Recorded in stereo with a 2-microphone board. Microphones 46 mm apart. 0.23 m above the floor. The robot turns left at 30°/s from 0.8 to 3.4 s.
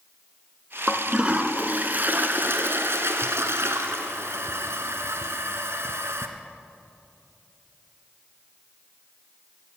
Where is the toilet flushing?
10° right, 1.1 m; by 6.3 s 90° right, 1.1 m.